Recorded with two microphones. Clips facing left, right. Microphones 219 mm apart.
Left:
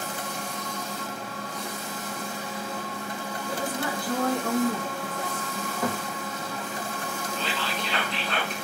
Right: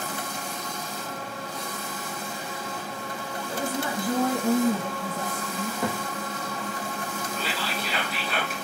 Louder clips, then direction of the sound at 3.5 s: Right 1 dB; 25° right (ahead or behind).